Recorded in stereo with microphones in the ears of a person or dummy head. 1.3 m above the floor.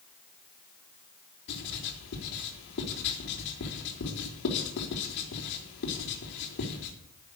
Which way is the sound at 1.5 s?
55° left (ahead or behind).